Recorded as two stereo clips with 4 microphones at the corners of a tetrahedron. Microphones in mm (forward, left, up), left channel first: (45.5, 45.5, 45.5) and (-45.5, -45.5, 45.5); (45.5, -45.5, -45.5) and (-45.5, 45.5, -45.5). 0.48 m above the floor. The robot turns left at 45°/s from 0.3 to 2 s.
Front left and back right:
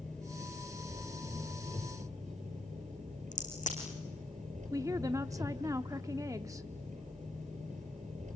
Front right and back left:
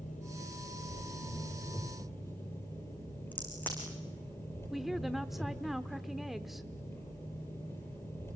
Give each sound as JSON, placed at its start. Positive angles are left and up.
{"t": 0.0, "sound": "an engine running", "azimuth_deg": -40, "distance_m": 8.5}
{"t": 3.3, "sound": "a crack", "azimuth_deg": 30, "distance_m": 5.5}
{"t": 4.7, "sound": "a woman speaking", "azimuth_deg": -140, "distance_m": 0.7}